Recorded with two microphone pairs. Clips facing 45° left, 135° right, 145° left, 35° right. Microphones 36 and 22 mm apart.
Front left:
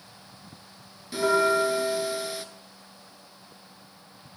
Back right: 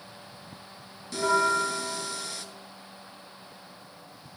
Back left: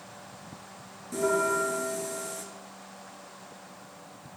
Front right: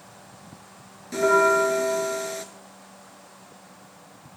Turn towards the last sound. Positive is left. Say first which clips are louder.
# front left 2 dB, front right 8 dB
turn(degrees=-30)